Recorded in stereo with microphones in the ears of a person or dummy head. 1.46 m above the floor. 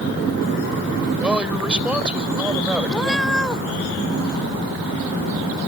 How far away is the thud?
I don't hear a thud.